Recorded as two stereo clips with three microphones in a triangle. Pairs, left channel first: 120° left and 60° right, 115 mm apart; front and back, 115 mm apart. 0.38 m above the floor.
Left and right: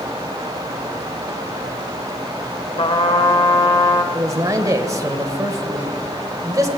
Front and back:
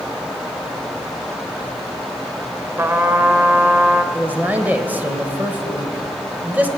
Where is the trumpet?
115° left, 0.8 m.